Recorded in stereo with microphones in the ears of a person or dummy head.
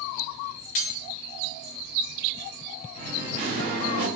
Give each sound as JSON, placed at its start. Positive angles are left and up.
{"t": 0.8, "sound": "cutlery clinking", "side_deg": 50, "distance_m": 0.9}
{"t": 3.0, "sound": "singing", "side_deg": -35, "distance_m": 0.9}